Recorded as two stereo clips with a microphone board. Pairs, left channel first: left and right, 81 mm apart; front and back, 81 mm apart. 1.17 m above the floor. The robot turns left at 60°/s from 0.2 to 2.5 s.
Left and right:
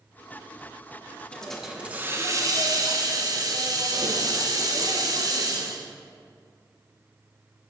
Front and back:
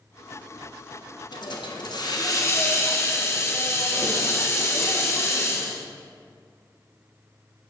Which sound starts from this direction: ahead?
A hiss, at 1.3 s.